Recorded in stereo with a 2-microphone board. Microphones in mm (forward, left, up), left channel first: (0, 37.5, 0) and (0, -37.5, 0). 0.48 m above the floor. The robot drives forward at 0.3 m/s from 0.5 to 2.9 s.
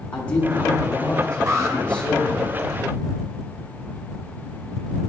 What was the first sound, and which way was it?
A man speaking, 15° left (ahead or behind).